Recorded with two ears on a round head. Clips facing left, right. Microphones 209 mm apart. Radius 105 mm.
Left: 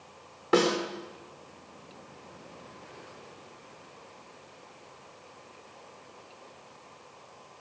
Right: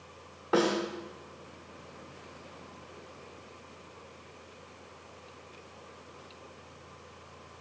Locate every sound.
0.5 s a snare drum: 35° left (ahead or behind), 1.2 m